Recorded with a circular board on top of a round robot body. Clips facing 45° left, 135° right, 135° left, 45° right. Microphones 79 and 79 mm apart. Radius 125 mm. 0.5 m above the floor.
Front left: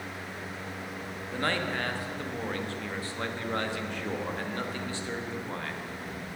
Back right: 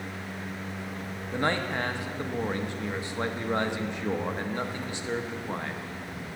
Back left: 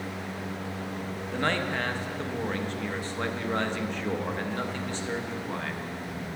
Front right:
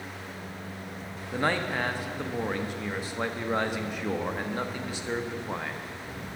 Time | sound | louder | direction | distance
1.3 | a man speaking | back right 2 dB, front right 1 dB | 105° right | 0.9 m